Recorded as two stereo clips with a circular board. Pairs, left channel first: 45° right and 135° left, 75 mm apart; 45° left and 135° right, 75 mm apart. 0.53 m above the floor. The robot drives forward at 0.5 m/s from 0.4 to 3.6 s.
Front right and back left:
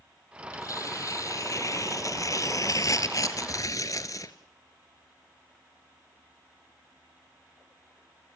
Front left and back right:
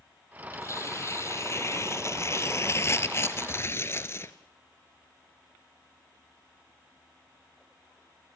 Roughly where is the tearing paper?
Ahead.